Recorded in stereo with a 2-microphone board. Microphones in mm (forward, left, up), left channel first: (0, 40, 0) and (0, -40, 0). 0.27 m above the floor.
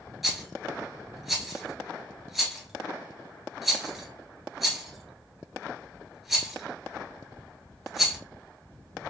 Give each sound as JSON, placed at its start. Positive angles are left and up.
{"t": 0.2, "sound": "a rattle", "side_deg": 0, "distance_m": 1.2}